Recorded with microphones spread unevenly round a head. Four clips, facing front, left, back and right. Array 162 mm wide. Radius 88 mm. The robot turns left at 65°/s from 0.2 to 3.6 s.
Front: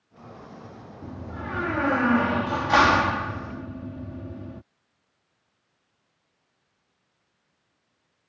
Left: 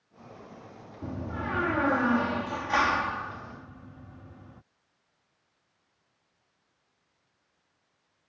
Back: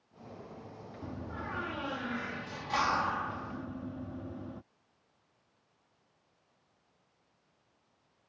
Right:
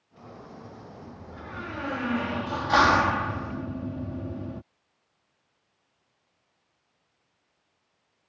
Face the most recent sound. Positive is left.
turn(degrees=-80)